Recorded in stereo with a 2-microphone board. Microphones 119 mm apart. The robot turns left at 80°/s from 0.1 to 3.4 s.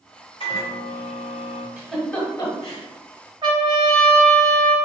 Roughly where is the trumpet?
Right.